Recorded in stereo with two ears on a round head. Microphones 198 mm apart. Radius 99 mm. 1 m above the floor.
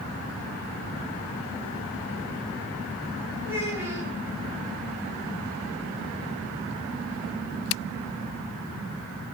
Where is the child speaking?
10° right (ahead or behind), 5 m.